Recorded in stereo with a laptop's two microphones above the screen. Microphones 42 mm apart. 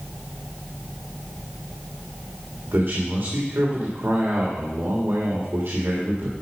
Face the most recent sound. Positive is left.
turn(degrees=-75)  # may be behind; listen again after turning